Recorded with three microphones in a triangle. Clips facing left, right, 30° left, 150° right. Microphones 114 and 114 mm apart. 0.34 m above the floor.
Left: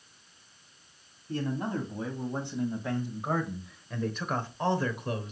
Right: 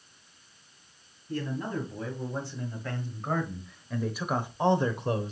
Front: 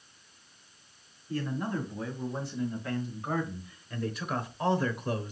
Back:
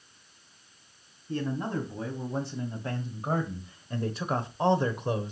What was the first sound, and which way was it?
A man speaking, 150° left.